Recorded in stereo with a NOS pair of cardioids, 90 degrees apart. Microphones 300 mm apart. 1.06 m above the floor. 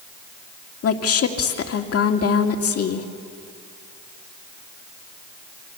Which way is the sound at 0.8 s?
50° left.